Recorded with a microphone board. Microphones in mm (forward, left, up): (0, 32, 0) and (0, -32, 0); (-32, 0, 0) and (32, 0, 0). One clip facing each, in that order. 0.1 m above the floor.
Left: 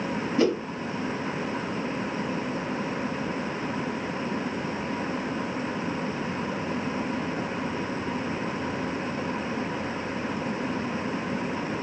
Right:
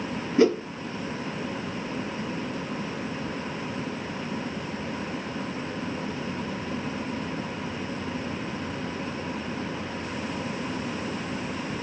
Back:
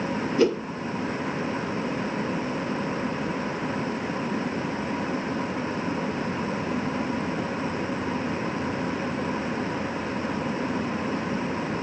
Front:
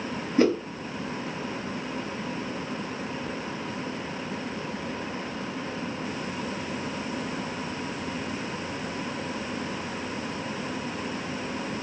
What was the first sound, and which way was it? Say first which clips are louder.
A whoosh: right 4 dB, even; 35° right.